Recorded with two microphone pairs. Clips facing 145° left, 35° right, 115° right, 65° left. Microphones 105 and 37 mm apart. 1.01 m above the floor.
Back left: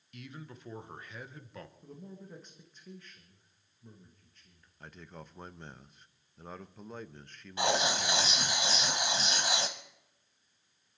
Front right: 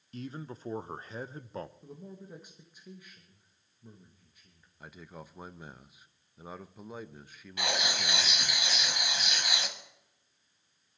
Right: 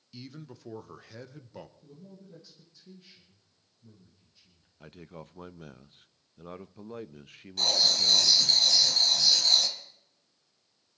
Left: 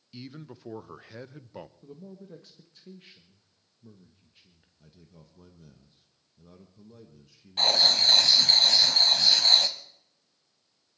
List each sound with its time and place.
0.1 s a man speaking: 5° right, 0.7 m
1.8 s a man speaking: 40° left, 1.4 m
4.8 s a man speaking: 125° right, 0.7 m
7.6 s writing: 95° left, 1.3 m